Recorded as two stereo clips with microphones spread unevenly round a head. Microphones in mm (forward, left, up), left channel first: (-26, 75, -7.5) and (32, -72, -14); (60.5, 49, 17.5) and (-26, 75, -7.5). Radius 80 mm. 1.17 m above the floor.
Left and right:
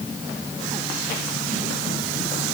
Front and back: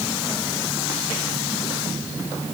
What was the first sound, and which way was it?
Only background noise.